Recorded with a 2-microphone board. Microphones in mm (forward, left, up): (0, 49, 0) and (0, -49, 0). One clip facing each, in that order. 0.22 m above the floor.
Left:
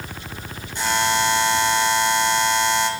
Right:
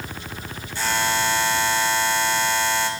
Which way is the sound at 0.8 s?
20° left (ahead or behind).